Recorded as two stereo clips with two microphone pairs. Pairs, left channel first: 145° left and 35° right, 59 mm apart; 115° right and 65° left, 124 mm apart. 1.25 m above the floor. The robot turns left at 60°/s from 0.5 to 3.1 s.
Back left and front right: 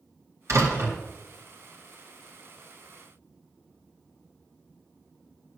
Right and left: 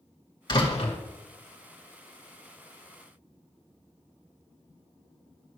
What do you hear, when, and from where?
0.5 s a door slam: 60° right, 2 m; by 1.0 s 90° right, 2 m